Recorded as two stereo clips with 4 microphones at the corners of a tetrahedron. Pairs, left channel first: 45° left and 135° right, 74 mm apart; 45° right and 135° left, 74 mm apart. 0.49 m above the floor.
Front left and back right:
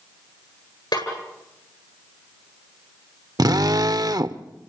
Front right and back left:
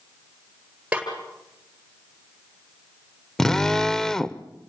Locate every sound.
0.9 s a snare drum: 60° left, 9 m
3.4 s a drill: 125° right, 0.7 m